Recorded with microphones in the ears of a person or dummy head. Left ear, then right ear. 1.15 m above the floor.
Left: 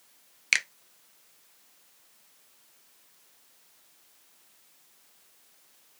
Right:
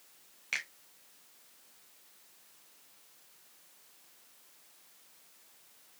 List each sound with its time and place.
0.5 s a finger snap: 70° left (ahead or behind), 0.6 m